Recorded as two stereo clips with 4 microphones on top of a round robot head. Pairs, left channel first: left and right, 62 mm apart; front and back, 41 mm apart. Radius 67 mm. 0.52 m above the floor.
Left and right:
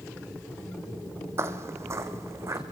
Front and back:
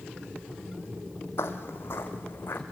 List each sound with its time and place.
1.4 s footsteps: 40° right, 1.5 m; by 2.6 s 45° right, 2.5 m